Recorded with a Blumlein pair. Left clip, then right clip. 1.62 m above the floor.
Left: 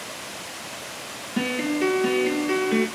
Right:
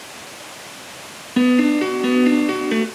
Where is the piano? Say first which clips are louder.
Right 8 dB; 65° right, 1.0 m.